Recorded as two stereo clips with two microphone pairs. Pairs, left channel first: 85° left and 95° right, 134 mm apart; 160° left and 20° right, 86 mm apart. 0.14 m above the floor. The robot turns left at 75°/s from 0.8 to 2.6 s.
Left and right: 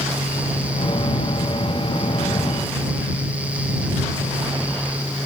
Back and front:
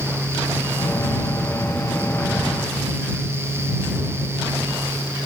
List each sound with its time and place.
Only background noise.